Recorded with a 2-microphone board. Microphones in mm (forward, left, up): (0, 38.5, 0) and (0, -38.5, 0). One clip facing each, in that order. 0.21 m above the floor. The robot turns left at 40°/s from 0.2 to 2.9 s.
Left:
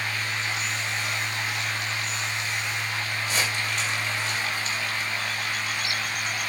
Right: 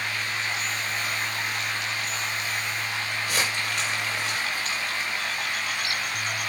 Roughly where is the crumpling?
Right.